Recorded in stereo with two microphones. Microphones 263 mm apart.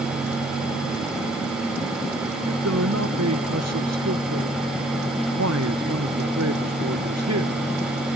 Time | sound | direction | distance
2.5 | a man speaking | 75° right (ahead or behind) | ?